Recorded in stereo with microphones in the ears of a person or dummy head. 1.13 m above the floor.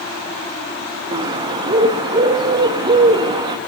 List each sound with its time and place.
1.1 s a bird: 25° right (ahead or behind), 0.6 m